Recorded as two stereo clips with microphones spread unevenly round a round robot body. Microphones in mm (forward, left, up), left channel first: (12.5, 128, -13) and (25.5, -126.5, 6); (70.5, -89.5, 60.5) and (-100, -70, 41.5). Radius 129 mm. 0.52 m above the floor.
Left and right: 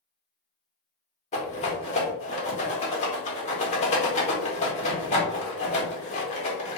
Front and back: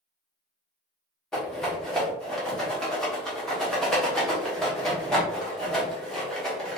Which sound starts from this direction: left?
A rattle, at 1.3 s.